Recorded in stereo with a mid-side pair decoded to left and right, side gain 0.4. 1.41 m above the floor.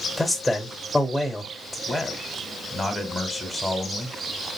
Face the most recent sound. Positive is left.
turn(degrees=20)